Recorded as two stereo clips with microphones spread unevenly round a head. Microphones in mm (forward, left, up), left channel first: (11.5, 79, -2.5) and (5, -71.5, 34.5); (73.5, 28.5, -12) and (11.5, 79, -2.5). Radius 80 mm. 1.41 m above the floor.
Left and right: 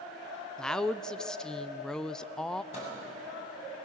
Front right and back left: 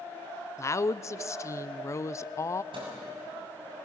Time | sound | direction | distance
0.6 | a woman speaking | 10° left | 0.6 m
2.7 | a microwave | 140° left | 6.5 m